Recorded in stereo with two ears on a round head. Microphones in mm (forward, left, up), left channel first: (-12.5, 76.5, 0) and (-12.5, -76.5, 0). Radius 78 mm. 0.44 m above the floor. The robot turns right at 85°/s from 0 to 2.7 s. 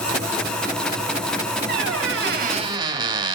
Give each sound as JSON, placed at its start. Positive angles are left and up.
{"t": 1.7, "sound": "a squeak", "azimuth_deg": -110, "distance_m": 0.6}